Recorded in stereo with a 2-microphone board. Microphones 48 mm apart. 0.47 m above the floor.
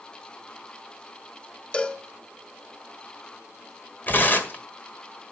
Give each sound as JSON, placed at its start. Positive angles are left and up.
{"t": 1.7, "sound": "a cowbell", "side_deg": 25, "distance_m": 1.4}
{"t": 4.1, "sound": "tearing paper", "side_deg": 40, "distance_m": 1.6}